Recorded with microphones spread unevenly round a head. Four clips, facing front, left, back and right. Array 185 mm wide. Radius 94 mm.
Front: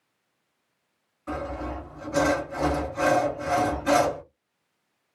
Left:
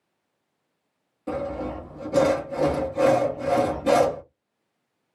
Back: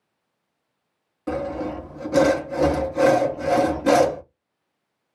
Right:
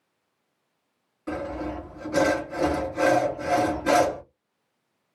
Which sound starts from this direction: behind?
Sawing, at 1.3 s.